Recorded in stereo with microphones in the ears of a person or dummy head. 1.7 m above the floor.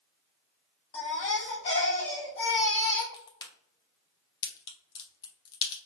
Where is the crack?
25° left (ahead or behind), 1.0 m.